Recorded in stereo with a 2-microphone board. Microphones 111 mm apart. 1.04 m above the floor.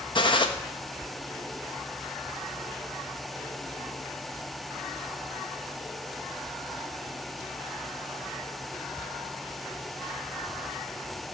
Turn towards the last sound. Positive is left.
turn(degrees=45)  # may be behind; listen again after turning